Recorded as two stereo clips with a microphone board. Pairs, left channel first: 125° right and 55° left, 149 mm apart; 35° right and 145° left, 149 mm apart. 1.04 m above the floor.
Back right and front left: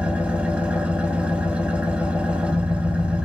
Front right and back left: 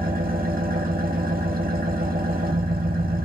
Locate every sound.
0.0 s an engine running: 140° left, 0.7 m